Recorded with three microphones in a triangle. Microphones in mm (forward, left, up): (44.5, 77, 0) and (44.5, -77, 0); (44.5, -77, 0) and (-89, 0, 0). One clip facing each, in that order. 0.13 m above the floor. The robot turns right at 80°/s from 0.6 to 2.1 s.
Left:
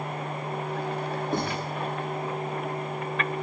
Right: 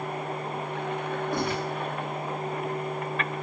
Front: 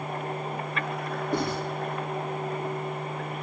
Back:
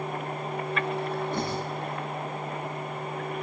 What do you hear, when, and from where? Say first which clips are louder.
1.3 s writing: even, front 2 dB; 20° left, 10 m; by 1.6 s 45° left, 10 m